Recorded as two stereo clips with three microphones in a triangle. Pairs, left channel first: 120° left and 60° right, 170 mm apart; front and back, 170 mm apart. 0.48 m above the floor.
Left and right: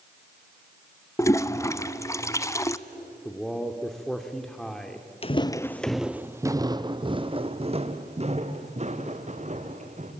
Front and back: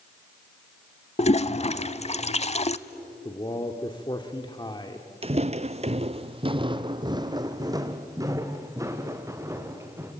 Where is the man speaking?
35° left, 1.4 m.